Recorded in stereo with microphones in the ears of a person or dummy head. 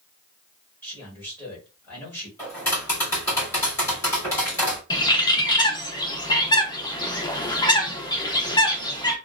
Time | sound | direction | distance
0.8 | a man speaking | 10° left (ahead or behind) | 1.8 m
2.4 | tapping | 15° left (ahead or behind) | 1.9 m
4.9 | a bird | 20° left (ahead or behind) | 0.5 m